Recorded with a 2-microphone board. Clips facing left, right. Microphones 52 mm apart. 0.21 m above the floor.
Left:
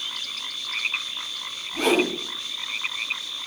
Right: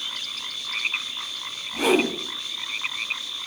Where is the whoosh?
10° right (ahead or behind), 0.7 m.